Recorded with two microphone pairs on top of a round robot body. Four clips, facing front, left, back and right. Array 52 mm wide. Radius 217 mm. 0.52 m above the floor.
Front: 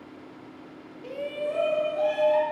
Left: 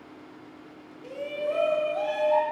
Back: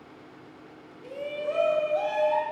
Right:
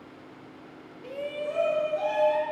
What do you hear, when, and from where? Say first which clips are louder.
1.0 s a shout: left 2 dB, front 1 dB; 20° right, 0.9 m; by 2.4 s 150° left, 1.5 m